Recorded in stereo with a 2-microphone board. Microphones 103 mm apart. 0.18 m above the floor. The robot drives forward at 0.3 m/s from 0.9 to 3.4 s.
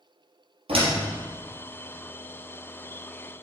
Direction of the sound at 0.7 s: 65° right (ahead or behind).